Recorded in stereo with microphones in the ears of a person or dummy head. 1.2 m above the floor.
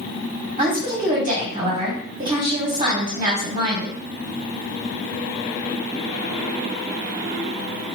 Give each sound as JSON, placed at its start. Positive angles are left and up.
{"t": 0.6, "sound": "a woman speaking", "side_deg": -20, "distance_m": 1.2}